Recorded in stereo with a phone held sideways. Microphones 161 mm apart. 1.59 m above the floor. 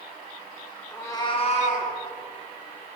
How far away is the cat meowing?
About 1.0 m.